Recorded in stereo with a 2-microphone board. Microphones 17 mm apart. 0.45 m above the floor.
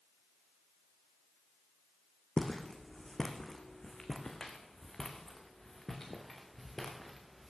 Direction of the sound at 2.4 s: 65° left (ahead or behind).